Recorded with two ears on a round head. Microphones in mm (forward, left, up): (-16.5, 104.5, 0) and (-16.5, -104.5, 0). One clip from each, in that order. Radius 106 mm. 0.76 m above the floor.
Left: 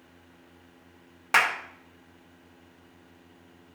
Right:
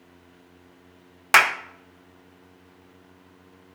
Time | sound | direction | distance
1.3 | a clap | 25° right (ahead or behind) | 0.5 m